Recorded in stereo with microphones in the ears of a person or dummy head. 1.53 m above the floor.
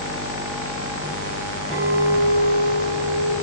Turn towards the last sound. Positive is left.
turn(degrees=-60)  # may be behind; listen again after turning